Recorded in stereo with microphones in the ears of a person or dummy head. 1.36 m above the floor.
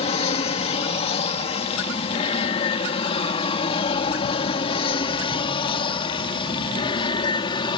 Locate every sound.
0.0 s an aircraft: 30° left (ahead or behind); by 7.8 s 25° left (ahead or behind)